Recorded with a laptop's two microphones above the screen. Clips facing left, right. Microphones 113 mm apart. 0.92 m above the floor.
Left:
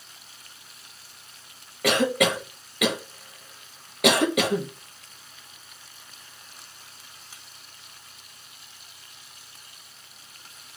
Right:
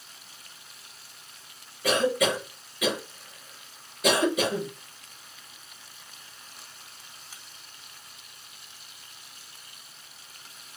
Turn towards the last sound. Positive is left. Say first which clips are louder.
# left 2 dB
turn(degrees=75)  # may be behind; listen again after turning